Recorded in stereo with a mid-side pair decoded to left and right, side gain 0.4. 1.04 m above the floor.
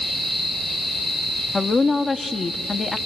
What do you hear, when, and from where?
1.5 s a woman speaking: 30° left, 1.5 m